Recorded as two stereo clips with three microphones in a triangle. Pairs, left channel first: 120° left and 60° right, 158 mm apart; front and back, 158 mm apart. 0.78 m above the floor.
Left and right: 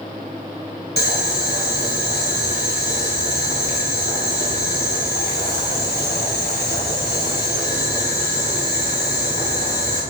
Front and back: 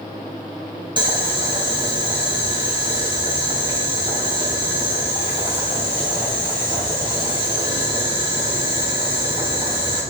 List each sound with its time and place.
1.0 s boiling: 120° left, 3 m